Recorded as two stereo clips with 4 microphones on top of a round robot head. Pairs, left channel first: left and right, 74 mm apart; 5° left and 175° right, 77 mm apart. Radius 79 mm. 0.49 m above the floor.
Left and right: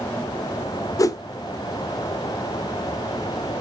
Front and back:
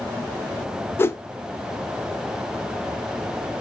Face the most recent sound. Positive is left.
turn(degrees=60)